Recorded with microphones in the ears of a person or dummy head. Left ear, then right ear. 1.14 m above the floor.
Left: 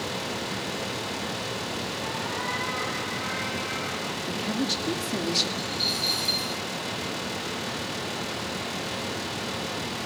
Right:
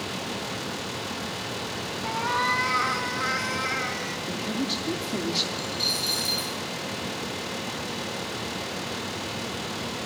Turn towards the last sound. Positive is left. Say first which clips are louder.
# even
turn(degrees=-5)  # may be behind; listen again after turning